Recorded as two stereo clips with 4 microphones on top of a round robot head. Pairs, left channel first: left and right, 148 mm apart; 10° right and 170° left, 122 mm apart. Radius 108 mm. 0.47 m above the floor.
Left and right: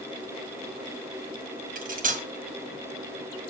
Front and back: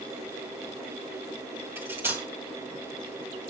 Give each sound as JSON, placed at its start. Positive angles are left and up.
{"t": 1.8, "sound": "cutlery clinking", "azimuth_deg": -115, "distance_m": 2.0}